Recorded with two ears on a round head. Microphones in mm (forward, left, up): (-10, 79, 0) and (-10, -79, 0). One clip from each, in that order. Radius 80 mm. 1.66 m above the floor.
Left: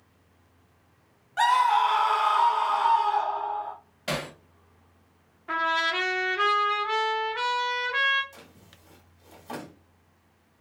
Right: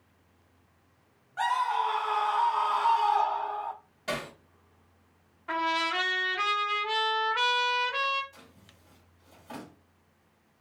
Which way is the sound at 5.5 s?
20° right (ahead or behind).